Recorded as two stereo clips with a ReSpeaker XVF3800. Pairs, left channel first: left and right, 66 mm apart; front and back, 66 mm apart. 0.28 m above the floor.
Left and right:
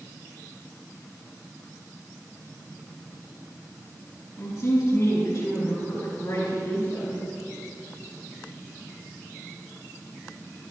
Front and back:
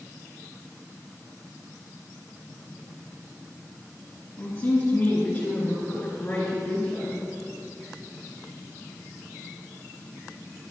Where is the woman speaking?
60° left, 3 m; by 7.2 s 65° left, 5.5 m.